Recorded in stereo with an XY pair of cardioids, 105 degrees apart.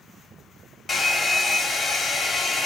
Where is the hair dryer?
25° left, 0.9 m.